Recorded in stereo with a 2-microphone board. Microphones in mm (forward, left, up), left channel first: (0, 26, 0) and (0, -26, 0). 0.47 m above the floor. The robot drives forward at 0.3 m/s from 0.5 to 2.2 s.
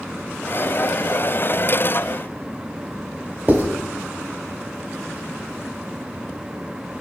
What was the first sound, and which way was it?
Writing, 30° right (ahead or behind).